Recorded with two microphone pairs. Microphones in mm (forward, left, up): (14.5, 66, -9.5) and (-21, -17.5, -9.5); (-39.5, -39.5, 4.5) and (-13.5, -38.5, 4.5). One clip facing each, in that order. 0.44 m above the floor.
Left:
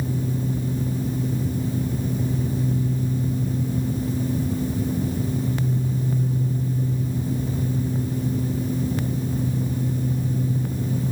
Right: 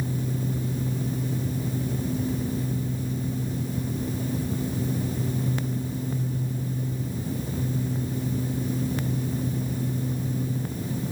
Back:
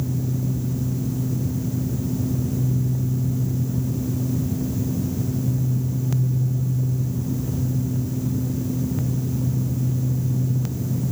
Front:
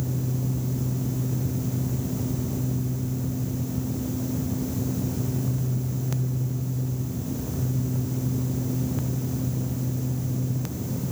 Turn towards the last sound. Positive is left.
No sound to turn to.